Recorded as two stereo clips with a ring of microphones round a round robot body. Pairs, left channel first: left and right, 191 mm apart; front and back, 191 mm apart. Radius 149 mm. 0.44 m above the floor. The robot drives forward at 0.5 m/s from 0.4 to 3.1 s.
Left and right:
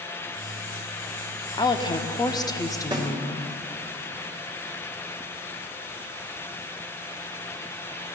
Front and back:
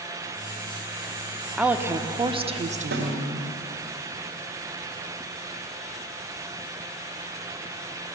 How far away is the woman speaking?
About 0.9 m.